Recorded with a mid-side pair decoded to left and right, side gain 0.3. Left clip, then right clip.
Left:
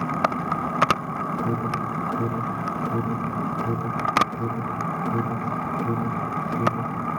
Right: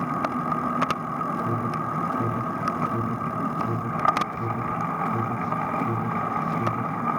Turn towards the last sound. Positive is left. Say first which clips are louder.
# even
turn(degrees=70)